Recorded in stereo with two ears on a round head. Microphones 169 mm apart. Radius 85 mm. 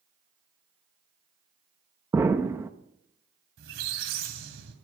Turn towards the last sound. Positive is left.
turn(degrees=-70)  # may be behind; listen again after turning